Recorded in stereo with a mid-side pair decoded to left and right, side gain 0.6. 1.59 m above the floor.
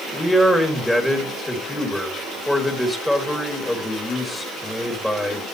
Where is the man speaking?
5° left, 4 m.